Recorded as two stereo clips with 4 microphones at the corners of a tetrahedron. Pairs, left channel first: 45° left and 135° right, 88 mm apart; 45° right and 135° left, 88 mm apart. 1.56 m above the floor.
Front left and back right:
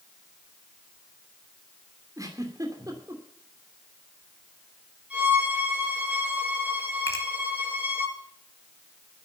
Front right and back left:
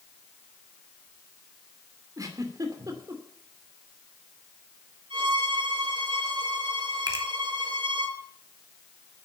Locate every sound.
2.2 s a giggle: straight behind, 2.5 m
5.1 s a violin: 150° left, 6.5 m
7.1 s a finger snap: 95° left, 2.5 m